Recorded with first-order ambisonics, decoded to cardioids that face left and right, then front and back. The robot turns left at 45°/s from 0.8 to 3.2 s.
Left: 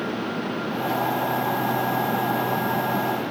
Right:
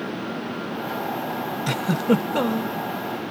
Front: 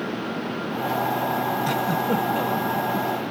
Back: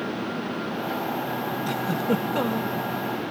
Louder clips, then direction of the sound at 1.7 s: Even, front 3 dB; 75° right.